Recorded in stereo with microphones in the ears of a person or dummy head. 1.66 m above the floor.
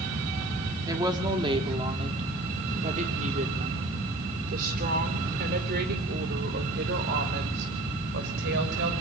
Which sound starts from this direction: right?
A woman speaking, at 0.9 s.